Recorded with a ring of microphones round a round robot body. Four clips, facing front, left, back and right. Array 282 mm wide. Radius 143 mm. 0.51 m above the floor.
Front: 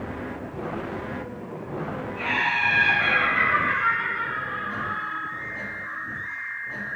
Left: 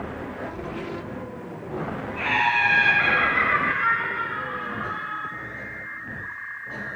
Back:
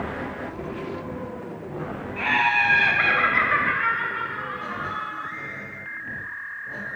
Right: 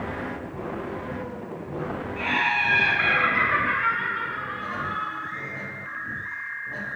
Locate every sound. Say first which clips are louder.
2.2 s laughter: left 3 dB, back 5 dB; 160° left, 4 m; by 5.2 s 115° right, 2.5 m